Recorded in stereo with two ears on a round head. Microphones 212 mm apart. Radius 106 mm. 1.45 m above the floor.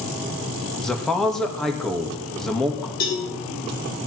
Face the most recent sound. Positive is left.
turn(degrees=40)  # may be behind; listen again after turning